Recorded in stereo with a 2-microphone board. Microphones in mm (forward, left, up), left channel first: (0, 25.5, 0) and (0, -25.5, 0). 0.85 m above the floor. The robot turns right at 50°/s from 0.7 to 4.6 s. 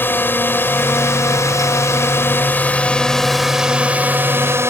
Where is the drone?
45° left; by 4.7 s 120° right.